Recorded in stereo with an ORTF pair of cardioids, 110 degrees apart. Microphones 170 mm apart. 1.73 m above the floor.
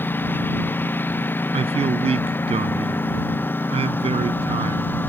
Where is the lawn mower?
10° left.